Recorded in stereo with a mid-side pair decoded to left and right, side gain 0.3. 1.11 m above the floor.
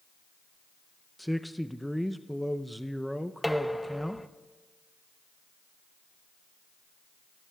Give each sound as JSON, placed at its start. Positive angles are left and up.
{"t": 1.2, "sound": "a man speaking", "azimuth_deg": 0, "distance_m": 0.5}
{"t": 3.4, "sound": "dishes clattering", "azimuth_deg": 5, "distance_m": 0.6}